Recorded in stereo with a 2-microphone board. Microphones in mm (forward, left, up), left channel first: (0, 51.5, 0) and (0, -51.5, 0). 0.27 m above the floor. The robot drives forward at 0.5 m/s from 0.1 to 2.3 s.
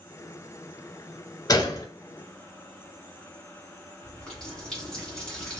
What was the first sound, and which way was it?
A gunshot, 40° left (ahead or behind).